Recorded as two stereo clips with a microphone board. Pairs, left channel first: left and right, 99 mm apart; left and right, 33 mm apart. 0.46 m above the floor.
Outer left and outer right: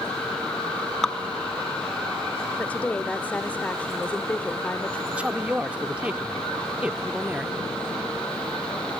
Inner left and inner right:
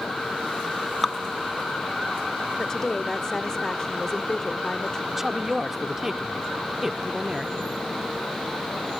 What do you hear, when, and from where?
1.0 s dripping: 5° left (ahead or behind), 0.7 m
2.6 s a woman speaking: 15° left (ahead or behind), 1.0 m
5.1 s a woman speaking: 10° right (ahead or behind), 0.8 m